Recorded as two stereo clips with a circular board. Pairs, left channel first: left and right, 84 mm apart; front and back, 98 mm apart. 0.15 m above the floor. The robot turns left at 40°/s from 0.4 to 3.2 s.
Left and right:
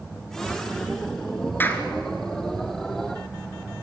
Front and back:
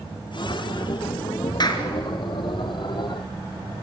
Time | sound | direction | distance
1.6 | a clap | 30° left | 1.8 m